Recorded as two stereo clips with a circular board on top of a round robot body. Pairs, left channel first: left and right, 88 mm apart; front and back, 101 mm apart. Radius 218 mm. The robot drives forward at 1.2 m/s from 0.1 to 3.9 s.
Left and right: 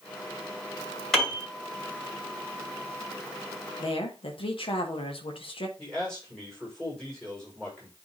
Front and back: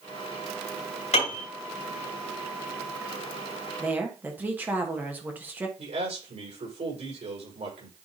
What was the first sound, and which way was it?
A piano, 5° left.